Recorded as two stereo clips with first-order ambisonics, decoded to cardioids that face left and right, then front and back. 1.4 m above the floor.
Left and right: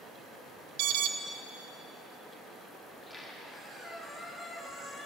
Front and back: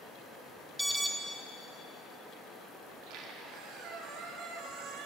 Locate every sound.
0.8 s an alarm: 95° right, 0.6 m
2.9 s a squeak: 170° left, 1.1 m